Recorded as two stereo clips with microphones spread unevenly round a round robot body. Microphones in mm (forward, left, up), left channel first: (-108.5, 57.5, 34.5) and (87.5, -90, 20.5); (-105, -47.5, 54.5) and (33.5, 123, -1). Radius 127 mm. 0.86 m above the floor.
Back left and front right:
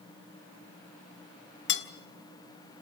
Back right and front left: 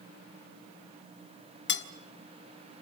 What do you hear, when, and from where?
1.7 s cutlery clinking: 170° right, 1.3 m